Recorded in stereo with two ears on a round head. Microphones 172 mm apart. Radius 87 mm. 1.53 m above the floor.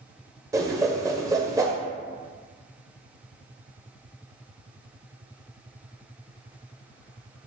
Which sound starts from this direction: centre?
A whoosh, at 0.5 s.